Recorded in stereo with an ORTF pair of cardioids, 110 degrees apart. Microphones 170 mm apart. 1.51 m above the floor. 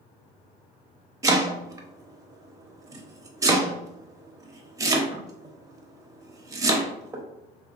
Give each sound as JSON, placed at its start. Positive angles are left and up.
{"t": 1.2, "sound": "chopping", "azimuth_deg": -20, "distance_m": 0.7}